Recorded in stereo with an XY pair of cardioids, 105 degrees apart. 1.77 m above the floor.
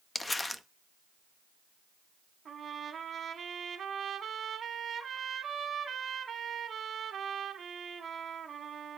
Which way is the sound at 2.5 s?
50° right.